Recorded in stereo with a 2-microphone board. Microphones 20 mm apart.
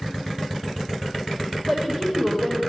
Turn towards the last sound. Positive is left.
turn(degrees=-30)  # may be behind; listen again after turning